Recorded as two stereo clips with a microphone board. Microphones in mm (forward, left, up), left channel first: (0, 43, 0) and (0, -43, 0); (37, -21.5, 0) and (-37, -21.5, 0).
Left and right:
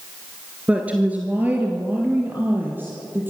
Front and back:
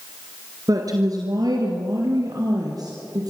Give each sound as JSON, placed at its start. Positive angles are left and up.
{"t": 0.7, "sound": "a woman speaking", "azimuth_deg": -165, "distance_m": 1.9}